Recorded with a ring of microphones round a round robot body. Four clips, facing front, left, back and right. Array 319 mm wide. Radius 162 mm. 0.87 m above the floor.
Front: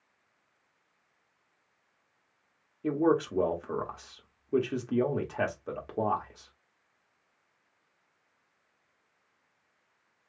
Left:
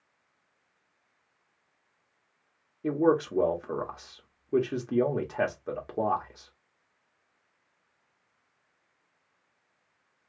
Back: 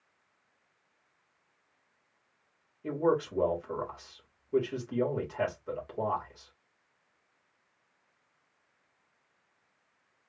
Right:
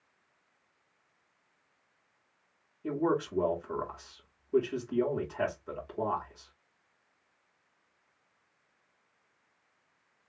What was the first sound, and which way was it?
A man speaking, 55° left.